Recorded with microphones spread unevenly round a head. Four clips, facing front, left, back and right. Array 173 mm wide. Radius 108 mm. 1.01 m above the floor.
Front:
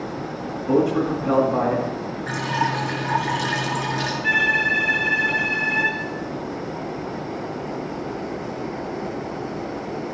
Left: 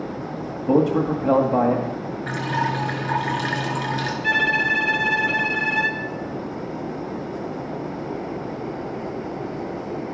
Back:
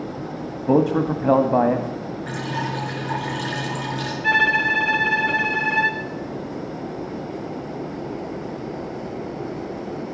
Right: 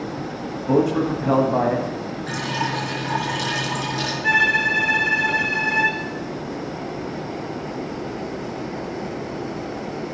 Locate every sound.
0.7 s a man speaking: 175° left, 1.9 m
2.3 s dripping: 55° left, 4.5 m
4.2 s a violin: 170° left, 0.9 m